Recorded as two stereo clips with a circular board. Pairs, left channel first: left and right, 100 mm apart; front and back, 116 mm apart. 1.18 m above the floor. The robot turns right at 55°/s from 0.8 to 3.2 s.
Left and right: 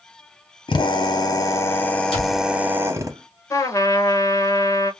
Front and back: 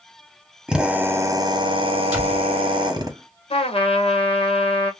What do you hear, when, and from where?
0.7 s a drill: 100° left, 0.9 m; by 3.1 s 135° right, 0.9 m
2.1 s a door slam: 100° left, 1.9 m; by 2.5 s 115° left, 1.9 m
3.5 s a trumpet: 30° left, 0.9 m